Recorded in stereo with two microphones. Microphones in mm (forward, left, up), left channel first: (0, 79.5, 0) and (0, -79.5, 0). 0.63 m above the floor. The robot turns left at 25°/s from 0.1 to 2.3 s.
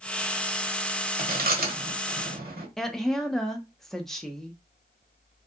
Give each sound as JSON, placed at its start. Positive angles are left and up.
{"t": 1.2, "sound": "chewing", "side_deg": -70, "distance_m": 0.8}
{"t": 2.8, "sound": "a woman speaking", "side_deg": 0, "distance_m": 0.5}